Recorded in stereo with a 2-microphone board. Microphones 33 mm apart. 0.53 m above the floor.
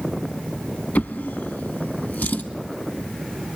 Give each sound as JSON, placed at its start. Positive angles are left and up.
{"t": 0.9, "sound": "a drawer", "side_deg": 80, "distance_m": 1.0}